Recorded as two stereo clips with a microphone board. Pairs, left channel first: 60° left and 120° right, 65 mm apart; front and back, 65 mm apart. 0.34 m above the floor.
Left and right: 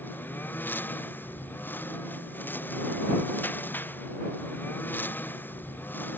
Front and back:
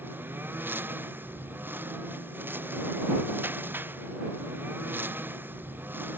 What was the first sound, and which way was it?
A lawn mower, 120° left.